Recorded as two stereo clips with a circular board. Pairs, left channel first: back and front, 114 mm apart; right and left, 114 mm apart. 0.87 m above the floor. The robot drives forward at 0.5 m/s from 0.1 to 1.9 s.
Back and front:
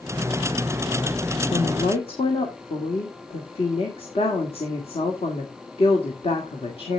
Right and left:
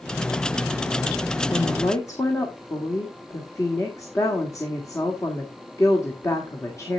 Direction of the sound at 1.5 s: 150° right.